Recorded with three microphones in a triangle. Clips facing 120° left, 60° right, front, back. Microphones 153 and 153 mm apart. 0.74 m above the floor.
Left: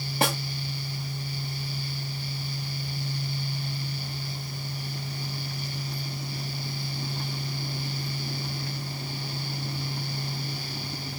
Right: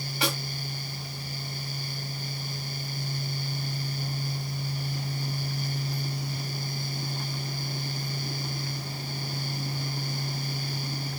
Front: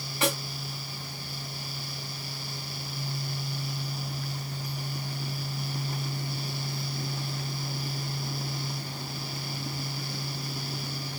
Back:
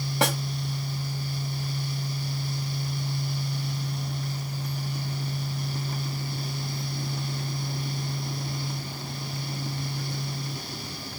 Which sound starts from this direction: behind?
A snare drum, at 0.2 s.